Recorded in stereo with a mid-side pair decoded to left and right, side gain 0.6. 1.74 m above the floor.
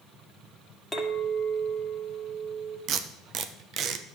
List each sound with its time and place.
0.9 s a clink: 5° right, 2 m
2.9 s tape being pulled: 50° right, 0.9 m